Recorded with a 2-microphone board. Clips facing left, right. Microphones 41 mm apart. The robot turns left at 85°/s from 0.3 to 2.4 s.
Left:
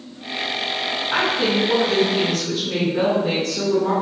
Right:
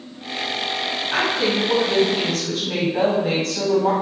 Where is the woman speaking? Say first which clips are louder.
Left 1 dB; 10° left, 1.7 m; by 3.9 s 100° right, 1.7 m.